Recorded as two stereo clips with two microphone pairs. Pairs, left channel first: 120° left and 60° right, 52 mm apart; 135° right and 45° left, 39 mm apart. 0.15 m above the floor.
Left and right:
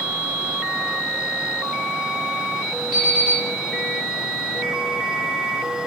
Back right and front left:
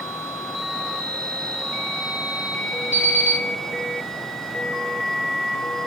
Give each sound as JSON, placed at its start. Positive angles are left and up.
{"t": 2.9, "sound": "an alarm clock", "azimuth_deg": 25, "distance_m": 1.5}